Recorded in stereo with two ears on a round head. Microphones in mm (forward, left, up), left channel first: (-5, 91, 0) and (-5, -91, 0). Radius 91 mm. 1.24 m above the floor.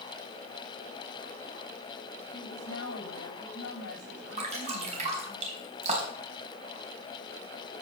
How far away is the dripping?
About 4.5 m.